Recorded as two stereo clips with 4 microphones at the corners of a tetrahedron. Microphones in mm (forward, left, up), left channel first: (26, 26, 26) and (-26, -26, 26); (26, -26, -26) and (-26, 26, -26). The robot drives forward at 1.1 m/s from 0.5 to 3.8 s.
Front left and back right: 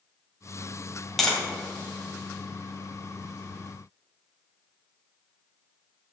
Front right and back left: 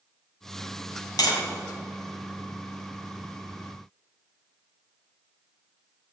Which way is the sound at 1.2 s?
45° right.